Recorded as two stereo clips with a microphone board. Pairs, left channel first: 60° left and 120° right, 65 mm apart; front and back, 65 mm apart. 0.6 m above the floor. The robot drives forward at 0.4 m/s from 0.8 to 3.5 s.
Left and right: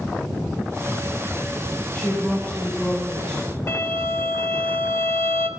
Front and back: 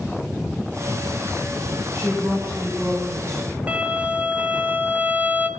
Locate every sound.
1.9 s a woman speaking: 120° left, 2.5 m; by 3.4 s 130° left, 3 m
3.7 s a violin: 110° left, 0.5 m